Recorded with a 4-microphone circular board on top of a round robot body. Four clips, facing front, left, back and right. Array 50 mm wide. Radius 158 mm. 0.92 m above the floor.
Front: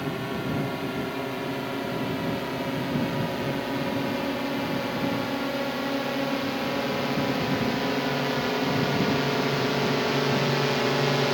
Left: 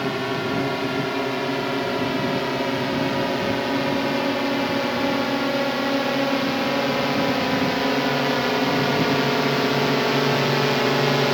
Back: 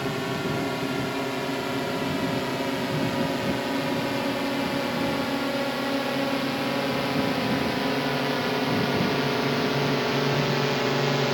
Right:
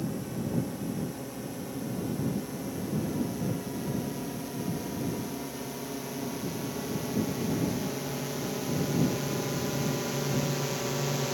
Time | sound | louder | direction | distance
0.0 | a drone | left 10 dB, back 2 dB | 100° left | ?